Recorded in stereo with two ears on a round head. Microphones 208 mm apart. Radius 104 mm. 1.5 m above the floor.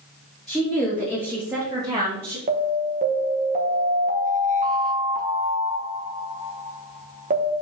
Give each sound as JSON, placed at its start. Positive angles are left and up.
{"t": 0.5, "sound": "a woman speaking", "side_deg": 0, "distance_m": 2.5}
{"t": 2.5, "sound": "an alarm", "side_deg": -35, "distance_m": 1.4}